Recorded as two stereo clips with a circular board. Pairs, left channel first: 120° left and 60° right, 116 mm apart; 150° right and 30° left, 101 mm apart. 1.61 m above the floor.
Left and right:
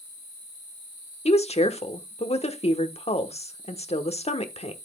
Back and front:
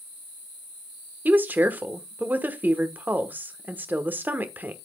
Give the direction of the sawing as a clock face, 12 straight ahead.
No sawing in this recording.